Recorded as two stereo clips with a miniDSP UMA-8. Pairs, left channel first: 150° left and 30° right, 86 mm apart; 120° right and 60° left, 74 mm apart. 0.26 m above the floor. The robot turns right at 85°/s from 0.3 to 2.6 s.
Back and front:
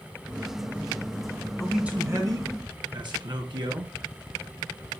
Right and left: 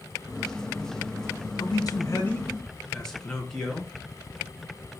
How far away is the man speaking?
About 3.5 m.